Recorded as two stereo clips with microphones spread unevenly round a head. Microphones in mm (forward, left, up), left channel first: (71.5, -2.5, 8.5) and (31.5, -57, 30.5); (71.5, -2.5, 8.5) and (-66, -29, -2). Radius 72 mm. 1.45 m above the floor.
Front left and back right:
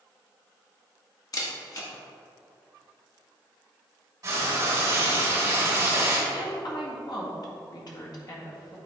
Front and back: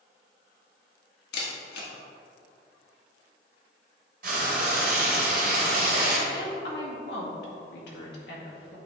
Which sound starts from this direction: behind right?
Frying, at 4.2 s.